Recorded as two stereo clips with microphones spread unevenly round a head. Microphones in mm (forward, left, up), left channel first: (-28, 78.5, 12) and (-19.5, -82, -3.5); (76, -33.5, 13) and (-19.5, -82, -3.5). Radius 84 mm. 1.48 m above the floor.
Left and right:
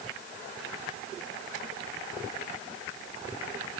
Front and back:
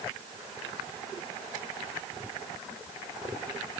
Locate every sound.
Only background noise.